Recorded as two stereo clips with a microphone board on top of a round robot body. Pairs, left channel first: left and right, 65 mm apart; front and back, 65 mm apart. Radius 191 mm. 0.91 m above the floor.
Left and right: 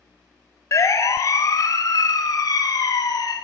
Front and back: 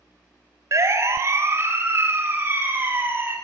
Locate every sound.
0.7 s a siren: 135° left, 3.5 m; by 3.4 s 120° left, 6 m